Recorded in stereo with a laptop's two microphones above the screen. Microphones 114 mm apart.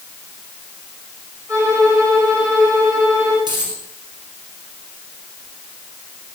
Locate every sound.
1.5 s a violin: 30° right (ahead or behind), 4.5 m
3.5 s a dropped coin: 40° right (ahead or behind), 3 m